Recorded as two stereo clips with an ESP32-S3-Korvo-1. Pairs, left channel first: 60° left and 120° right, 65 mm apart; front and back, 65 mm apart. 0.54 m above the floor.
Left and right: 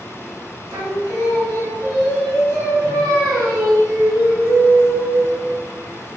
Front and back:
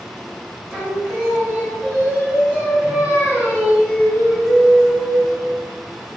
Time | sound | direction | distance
0.7 | singing | 110° right | 1.2 m